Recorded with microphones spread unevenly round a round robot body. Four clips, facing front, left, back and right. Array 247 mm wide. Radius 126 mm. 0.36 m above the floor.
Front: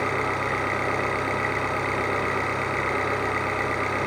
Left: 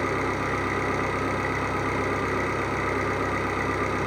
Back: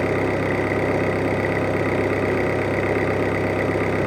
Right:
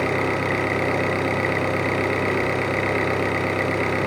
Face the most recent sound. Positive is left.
turn(degrees=-170)